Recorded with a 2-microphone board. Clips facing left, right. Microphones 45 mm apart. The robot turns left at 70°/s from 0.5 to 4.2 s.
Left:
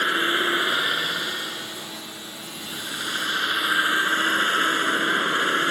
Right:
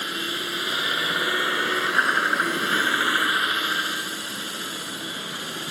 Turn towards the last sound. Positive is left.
turn(degrees=135)